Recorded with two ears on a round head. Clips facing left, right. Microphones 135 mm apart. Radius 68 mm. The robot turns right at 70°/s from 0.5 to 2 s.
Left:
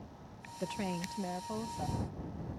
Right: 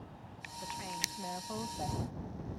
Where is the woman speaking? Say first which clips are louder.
Left 6 dB; 105° left; by 2.0 s 160° right.